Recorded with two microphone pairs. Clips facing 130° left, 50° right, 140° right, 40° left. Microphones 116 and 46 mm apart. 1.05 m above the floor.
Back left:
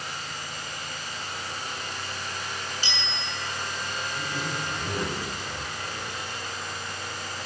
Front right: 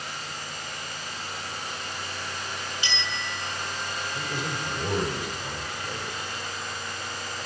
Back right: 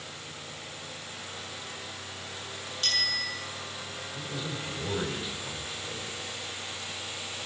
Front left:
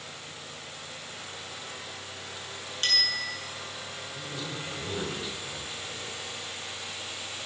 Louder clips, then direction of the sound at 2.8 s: Front right 1 dB, front left 2 dB; 80° left.